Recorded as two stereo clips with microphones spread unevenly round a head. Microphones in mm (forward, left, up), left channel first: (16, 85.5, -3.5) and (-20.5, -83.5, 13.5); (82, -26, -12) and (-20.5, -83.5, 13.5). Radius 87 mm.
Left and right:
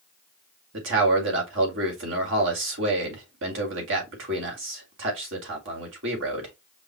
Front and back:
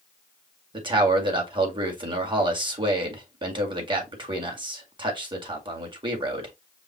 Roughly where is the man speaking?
Right.